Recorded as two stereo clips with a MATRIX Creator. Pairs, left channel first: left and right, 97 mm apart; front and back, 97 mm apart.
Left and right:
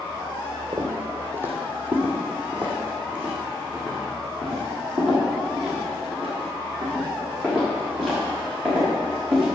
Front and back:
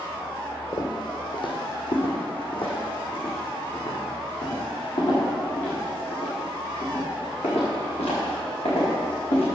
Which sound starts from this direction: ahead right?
Footsteps, at 0.7 s.